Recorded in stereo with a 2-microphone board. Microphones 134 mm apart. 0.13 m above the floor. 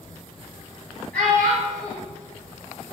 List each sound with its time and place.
1.1 s a child speaking: 10° left (ahead or behind), 1.6 m